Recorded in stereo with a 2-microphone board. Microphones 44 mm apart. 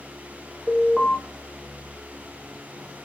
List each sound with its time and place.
0.7 s an alarm: 10° left (ahead or behind), 1.1 m